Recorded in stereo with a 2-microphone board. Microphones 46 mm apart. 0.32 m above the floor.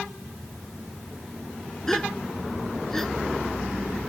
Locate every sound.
1.9 s a gasp: 10° left (ahead or behind)